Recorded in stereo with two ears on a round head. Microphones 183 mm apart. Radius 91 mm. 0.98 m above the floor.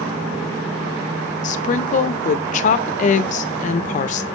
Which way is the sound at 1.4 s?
35° left (ahead or behind).